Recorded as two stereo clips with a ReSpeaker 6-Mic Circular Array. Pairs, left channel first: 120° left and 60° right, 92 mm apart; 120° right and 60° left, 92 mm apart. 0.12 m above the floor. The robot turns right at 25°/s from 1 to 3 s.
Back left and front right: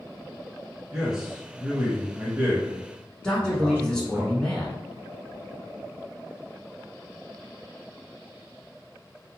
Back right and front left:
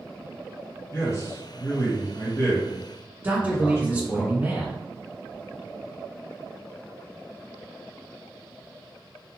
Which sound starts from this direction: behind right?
A man speaking, at 0.9 s.